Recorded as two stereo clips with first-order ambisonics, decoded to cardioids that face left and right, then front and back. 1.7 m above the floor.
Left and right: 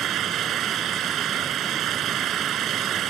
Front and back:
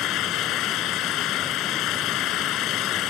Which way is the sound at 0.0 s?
40° right.